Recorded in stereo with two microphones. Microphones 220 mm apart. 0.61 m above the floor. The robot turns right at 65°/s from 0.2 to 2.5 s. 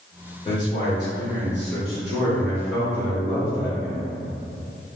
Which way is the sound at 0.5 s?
20° left (ahead or behind).